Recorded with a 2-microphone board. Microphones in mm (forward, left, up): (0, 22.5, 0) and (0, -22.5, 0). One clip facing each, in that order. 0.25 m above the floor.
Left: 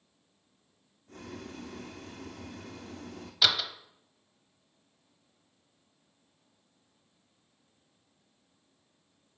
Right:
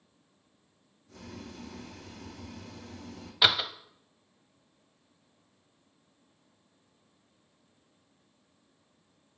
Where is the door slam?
20° right (ahead or behind), 0.8 m.